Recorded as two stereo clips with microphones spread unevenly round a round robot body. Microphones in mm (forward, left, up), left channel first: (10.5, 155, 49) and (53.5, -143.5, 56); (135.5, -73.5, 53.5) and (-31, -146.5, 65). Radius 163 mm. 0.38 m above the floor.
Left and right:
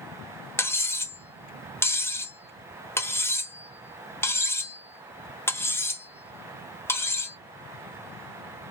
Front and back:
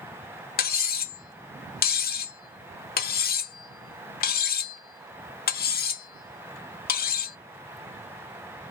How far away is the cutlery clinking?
About 0.6 m.